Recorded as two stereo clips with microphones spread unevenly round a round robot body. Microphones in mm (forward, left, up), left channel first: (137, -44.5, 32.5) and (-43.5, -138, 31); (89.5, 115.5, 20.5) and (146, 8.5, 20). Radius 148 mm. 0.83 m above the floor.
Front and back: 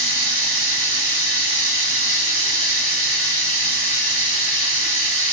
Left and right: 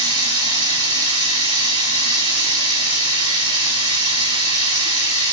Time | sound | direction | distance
0.0 | running water | 10° right | 1.4 m